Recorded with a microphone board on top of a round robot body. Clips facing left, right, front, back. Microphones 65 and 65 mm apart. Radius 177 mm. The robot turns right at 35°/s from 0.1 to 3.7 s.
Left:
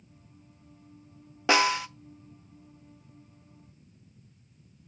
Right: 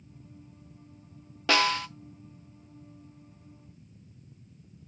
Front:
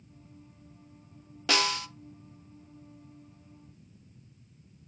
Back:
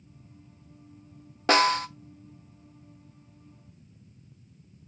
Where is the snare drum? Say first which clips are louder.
Left 2 dB, back 7 dB; 150° left, 1.0 m; by 1.9 s 165° left, 1.0 m.